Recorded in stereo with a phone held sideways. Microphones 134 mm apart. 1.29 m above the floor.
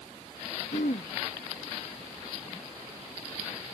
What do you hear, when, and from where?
0.7 s throat clearing: 75° left (ahead or behind)